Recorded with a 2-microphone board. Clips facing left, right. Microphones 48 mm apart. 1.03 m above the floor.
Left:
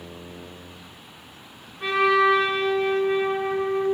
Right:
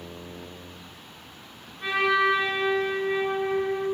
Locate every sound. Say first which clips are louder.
1.8 s a trumpet: left 4 dB; 70° left (ahead or behind), 3.5 m